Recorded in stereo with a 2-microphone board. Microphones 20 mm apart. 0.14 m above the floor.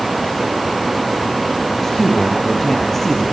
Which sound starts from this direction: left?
A man speaking, at 1.7 s.